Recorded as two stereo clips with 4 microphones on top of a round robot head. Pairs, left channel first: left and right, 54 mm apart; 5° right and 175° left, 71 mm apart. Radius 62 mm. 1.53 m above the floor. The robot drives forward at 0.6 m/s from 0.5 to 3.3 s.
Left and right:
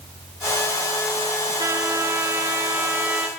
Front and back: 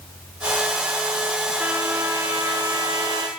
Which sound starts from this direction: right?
A trumpet, at 1.6 s.